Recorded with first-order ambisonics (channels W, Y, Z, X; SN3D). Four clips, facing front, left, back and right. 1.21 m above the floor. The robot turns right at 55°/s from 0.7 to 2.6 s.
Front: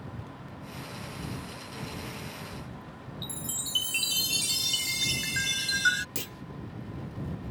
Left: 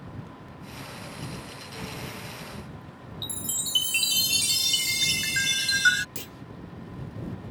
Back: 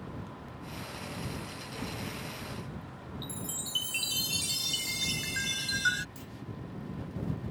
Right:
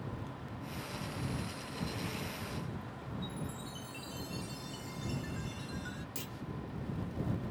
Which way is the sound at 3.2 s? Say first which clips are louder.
Left 13 dB, front 3 dB; 75° left.